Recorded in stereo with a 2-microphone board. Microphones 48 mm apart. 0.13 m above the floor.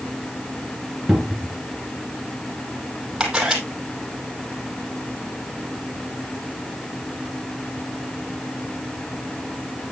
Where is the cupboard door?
5° right (ahead or behind), 1.9 m.